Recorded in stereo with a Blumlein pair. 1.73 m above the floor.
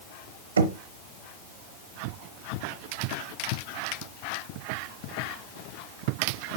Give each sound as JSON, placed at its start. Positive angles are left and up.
{"t": 0.6, "sound": "knocking", "azimuth_deg": -70, "distance_m": 0.9}